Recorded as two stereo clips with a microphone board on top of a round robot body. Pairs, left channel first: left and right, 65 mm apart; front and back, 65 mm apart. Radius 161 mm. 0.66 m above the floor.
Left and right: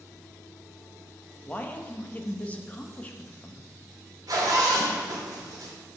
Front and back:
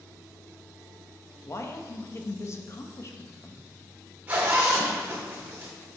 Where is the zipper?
115° right, 2 m.